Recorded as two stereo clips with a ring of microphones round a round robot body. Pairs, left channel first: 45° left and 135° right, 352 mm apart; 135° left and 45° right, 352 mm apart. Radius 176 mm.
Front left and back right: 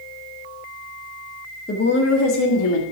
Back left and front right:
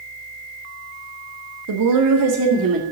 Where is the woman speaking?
20° right, 1.6 m; by 2.8 s 15° left, 2.5 m.